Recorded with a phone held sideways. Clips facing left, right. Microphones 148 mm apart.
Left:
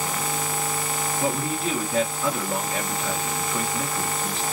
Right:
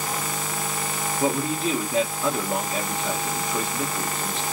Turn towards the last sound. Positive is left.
turn(degrees=-20)  # may be behind; listen again after turning